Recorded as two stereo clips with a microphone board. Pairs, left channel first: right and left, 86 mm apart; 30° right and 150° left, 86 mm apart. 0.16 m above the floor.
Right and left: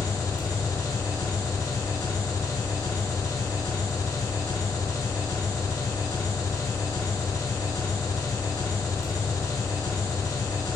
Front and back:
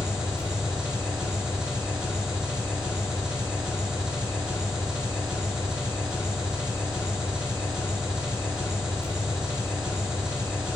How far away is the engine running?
About 0.7 m.